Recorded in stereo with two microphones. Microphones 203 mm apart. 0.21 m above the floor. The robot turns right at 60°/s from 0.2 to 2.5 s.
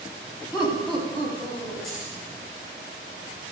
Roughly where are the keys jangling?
Centre.